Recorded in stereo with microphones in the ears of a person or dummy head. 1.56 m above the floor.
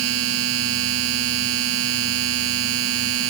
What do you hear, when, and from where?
0.0 s a machine running: 80° right